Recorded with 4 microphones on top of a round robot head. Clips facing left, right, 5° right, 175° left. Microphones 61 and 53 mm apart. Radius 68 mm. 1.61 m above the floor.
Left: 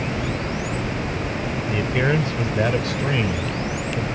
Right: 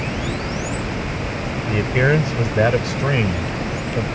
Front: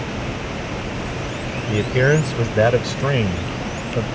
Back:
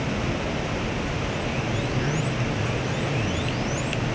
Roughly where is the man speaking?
Ahead.